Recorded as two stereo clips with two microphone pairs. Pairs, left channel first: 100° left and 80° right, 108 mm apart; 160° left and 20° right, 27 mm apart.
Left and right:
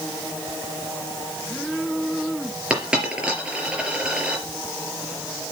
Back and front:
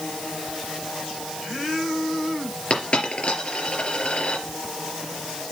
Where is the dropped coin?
160° right, 4 m.